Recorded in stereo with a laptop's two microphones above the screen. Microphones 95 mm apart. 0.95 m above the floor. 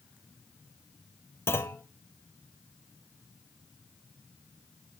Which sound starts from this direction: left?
A clunk, at 1.5 s.